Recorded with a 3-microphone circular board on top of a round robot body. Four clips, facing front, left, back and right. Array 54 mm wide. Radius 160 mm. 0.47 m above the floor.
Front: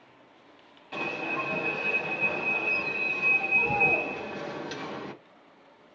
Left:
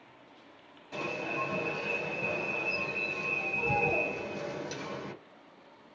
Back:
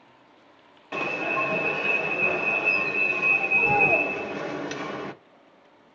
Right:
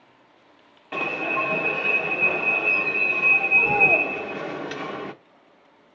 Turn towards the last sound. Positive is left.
turn(degrees=-125)